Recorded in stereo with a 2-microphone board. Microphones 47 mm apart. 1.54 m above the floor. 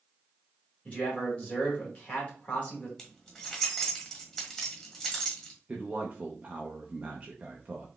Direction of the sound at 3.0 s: 10° left (ahead or behind).